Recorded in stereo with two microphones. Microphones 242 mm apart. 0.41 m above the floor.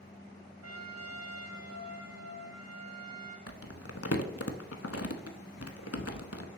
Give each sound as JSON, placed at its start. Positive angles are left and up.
{"t": 0.6, "sound": "a trumpet", "side_deg": -65, "distance_m": 1.9}
{"t": 3.5, "sound": "crumpling", "side_deg": 75, "distance_m": 0.7}